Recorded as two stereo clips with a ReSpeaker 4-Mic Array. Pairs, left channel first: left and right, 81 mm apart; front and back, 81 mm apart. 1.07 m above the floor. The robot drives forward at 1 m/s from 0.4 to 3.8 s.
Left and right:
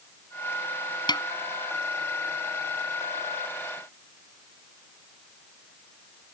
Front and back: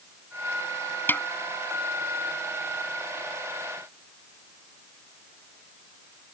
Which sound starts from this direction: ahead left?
A snare drum, at 1.1 s.